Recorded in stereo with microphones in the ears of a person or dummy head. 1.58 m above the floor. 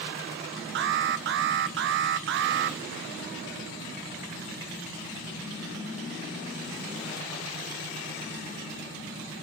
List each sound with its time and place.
0.8 s an alarm: 55° right (ahead or behind), 0.6 m